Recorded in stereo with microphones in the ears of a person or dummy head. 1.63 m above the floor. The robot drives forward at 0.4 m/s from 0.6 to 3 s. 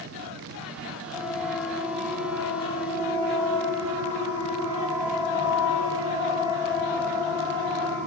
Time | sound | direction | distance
1.1 | a siren | 5° left (ahead or behind) | 4.5 m